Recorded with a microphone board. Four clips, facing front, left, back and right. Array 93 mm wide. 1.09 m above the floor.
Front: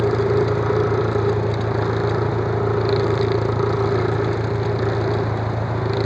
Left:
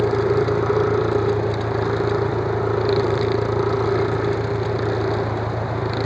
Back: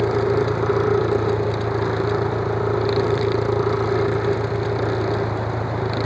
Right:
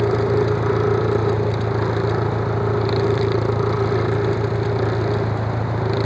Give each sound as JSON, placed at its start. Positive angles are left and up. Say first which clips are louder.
{"t": 0.0, "sound": "an engine running", "louder": "even, front 1 dB", "azimuth_deg": -65}